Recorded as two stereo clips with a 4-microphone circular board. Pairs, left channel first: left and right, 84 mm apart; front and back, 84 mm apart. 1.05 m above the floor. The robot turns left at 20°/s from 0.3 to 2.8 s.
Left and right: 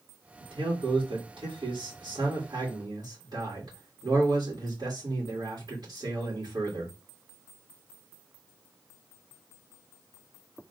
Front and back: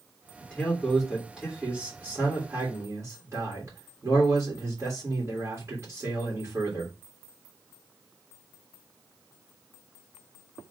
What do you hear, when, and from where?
0.4 s a man speaking: 75° right, 2.5 m; by 6.9 s 125° right, 2.5 m